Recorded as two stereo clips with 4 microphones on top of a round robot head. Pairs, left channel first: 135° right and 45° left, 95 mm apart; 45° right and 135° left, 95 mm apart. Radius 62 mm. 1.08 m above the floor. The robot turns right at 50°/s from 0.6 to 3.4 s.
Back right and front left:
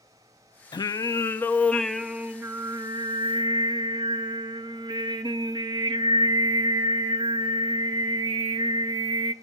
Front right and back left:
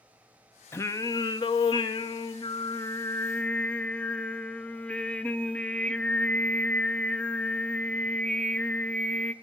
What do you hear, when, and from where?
0.7 s singing: 105° right, 0.7 m; by 9.3 s 30° left, 0.7 m